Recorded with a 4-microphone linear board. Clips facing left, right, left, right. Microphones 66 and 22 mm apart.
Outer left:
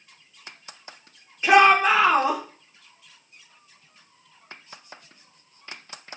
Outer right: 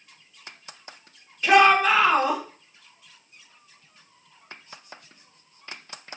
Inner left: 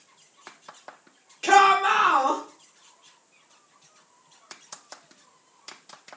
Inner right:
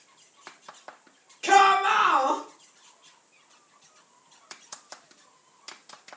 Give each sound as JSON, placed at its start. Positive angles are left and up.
{"t": 1.4, "sound": "a shout", "side_deg": 20, "distance_m": 2.0}